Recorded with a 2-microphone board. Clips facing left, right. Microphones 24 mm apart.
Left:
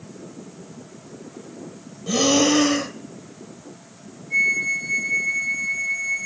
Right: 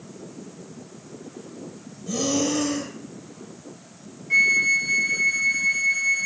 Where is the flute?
65° right (ahead or behind), 0.8 m.